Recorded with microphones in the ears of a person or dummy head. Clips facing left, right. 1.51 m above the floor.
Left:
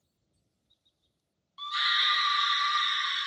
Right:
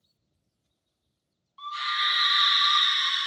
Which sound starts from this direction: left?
A scream, at 1.6 s.